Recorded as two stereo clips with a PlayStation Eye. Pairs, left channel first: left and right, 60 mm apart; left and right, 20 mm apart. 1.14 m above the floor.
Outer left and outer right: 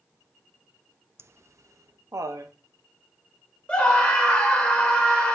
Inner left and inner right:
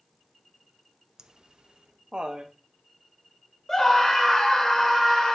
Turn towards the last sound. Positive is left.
turn(degrees=20)  # may be behind; listen again after turning